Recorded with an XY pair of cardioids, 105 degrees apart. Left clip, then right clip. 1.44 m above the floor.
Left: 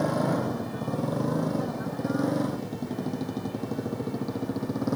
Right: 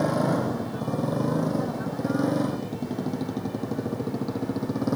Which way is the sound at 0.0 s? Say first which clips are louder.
Right 2 dB; 10° right.